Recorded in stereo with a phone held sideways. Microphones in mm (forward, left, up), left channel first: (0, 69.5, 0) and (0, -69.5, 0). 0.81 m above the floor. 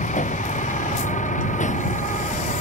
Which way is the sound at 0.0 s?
65° left (ahead or behind).